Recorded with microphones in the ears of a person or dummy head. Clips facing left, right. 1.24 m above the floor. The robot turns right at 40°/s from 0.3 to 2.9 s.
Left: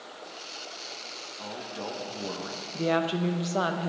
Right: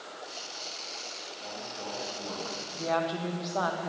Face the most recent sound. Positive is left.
turn(degrees=35)  # may be behind; listen again after turning